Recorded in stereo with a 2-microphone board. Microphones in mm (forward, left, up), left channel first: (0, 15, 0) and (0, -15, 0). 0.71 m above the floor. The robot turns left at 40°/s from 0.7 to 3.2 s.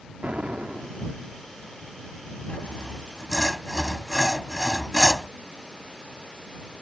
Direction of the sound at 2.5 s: 40° left (ahead or behind).